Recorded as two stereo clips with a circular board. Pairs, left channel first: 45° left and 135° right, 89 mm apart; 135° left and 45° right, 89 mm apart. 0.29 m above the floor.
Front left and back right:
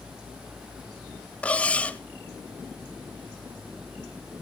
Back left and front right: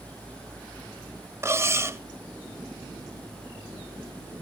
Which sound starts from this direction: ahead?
Cutlery clinking, at 1.4 s.